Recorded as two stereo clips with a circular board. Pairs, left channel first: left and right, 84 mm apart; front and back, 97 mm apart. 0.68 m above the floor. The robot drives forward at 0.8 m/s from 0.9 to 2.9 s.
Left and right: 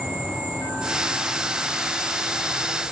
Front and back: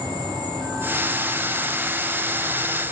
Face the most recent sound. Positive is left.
turn(degrees=-170)